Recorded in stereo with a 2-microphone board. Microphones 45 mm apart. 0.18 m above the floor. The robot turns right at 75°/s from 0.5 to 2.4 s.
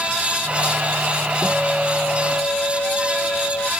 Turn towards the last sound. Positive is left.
turn(degrees=60)